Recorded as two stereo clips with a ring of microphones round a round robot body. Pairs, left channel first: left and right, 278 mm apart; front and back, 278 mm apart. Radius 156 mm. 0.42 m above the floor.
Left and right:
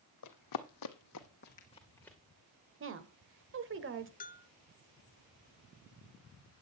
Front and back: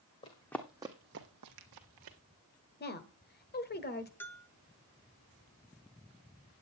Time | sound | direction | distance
0.2 | running footsteps | 70° left | 1.2 m
2.8 | a woman speaking | 50° right | 1.5 m
4.2 | a bell | 75° left | 0.6 m